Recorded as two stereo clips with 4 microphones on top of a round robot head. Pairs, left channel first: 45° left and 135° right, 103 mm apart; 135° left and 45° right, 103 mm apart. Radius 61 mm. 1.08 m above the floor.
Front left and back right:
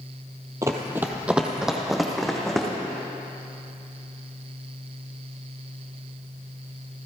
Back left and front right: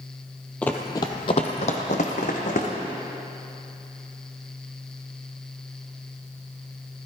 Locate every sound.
0.6 s running footsteps: 160° right, 1.1 m; by 2.7 s 130° left, 2.5 m